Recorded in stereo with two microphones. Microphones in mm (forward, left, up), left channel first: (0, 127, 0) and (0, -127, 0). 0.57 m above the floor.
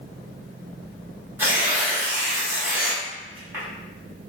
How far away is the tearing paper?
About 1.1 m.